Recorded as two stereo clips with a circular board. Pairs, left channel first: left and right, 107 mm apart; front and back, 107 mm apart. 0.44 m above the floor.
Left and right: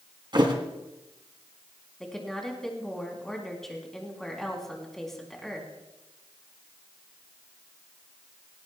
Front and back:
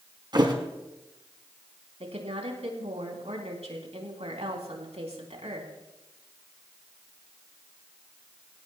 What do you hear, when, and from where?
0.3 s a thud: 135° right, 1.9 m
2.0 s a woman speaking: 175° left, 3.5 m